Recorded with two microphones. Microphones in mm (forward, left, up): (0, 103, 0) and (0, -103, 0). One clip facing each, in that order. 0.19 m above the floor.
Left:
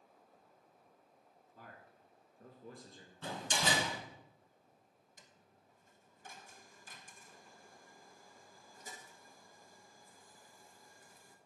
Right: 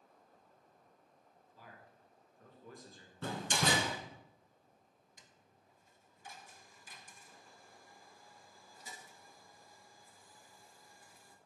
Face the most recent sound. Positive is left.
turn(degrees=45)  # may be behind; listen again after turning